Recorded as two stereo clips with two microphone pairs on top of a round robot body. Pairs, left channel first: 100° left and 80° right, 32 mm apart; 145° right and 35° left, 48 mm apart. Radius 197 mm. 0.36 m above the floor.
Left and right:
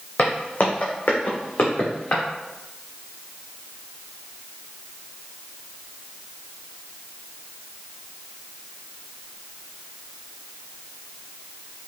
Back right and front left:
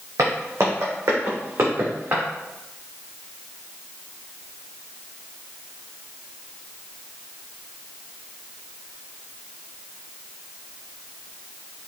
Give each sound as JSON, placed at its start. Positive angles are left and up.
{"t": 0.2, "sound": "footsteps", "azimuth_deg": 50, "distance_m": 1.0}